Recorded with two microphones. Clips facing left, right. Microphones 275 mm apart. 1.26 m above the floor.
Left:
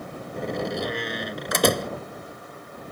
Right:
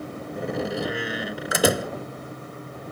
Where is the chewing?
No chewing in this recording.